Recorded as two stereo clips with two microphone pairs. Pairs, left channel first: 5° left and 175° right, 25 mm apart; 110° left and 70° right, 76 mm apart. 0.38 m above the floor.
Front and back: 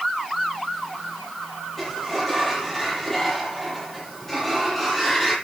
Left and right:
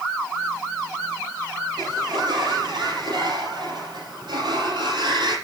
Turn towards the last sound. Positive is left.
turn(degrees=-80)